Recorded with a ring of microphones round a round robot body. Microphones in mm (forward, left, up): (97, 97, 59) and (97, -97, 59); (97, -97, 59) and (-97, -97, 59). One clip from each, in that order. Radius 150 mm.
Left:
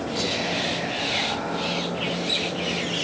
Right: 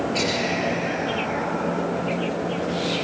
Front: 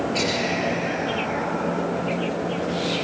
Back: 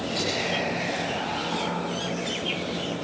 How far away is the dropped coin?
I don't hear a dropped coin.